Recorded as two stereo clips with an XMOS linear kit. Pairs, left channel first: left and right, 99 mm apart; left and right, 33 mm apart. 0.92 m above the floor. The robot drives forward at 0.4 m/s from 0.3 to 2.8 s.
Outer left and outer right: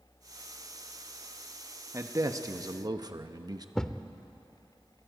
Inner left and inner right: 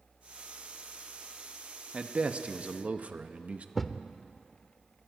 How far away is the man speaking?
About 1.2 m.